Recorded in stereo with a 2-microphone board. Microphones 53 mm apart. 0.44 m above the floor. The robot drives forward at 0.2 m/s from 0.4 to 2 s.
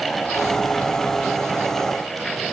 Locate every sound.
Only background noise.